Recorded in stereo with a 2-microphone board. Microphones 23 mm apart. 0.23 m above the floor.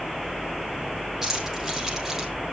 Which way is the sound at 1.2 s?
15° right (ahead or behind).